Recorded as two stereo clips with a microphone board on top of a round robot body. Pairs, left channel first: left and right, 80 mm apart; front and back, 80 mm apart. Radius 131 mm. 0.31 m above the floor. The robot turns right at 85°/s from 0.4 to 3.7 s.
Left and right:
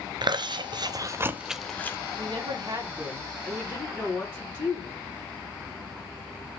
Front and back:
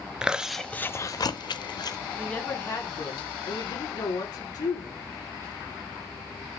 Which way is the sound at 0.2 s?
100° right.